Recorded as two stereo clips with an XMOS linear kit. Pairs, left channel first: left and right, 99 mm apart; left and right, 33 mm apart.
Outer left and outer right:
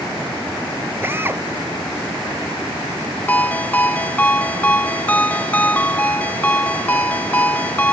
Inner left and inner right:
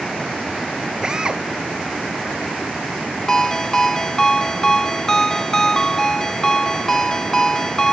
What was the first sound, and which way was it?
A drill, 20° right (ahead or behind).